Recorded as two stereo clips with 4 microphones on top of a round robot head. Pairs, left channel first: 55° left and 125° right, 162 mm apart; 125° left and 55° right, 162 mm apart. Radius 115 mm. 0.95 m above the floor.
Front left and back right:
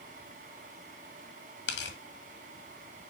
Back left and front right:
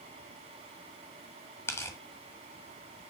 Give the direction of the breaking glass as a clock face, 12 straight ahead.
No breaking glass in this recording.